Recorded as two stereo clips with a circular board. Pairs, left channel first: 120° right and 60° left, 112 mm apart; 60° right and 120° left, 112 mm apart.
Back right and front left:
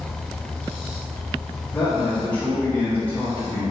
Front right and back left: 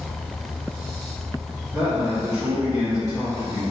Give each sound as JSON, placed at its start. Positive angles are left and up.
{"t": 1.7, "sound": "a man speaking", "azimuth_deg": 170, "distance_m": 1.3}